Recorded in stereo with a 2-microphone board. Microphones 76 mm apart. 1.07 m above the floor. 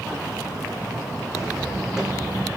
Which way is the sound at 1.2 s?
5° left (ahead or behind).